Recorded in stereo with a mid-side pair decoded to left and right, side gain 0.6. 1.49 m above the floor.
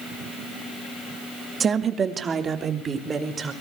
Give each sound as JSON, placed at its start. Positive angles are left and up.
{"t": 1.6, "sound": "a woman speaking", "azimuth_deg": -40, "distance_m": 2.0}